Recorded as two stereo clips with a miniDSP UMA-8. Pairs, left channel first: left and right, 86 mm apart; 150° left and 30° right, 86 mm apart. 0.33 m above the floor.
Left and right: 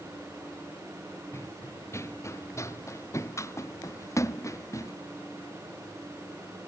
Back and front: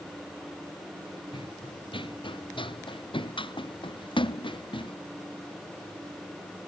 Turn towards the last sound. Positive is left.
turn(degrees=145)